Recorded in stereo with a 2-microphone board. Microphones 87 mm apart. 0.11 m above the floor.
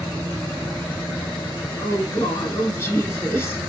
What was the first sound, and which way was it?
A woman speaking, 30° left (ahead or behind).